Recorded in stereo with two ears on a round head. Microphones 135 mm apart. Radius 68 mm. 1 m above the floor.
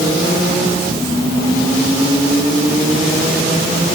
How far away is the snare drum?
No snare drum in this recording.